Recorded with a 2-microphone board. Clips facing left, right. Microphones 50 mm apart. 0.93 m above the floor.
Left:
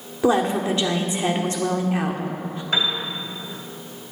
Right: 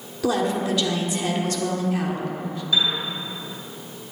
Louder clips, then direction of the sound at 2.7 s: Even; 55° left (ahead or behind).